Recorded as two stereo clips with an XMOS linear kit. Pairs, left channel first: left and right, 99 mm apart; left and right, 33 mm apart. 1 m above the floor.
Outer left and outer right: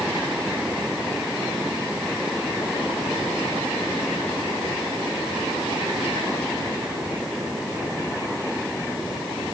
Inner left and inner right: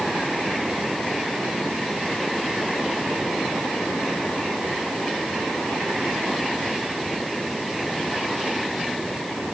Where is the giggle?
No giggle in this recording.